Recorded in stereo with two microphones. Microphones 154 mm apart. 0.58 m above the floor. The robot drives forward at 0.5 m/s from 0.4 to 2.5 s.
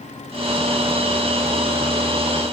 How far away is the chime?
No chime in this recording.